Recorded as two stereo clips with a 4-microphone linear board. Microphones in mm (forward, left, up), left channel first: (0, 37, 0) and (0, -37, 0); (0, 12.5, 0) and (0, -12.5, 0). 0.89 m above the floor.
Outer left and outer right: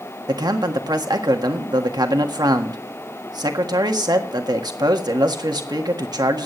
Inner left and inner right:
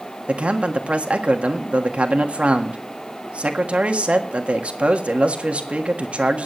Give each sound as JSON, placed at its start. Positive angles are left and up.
{"t": 0.3, "sound": "a man speaking", "side_deg": -65, "distance_m": 1.6}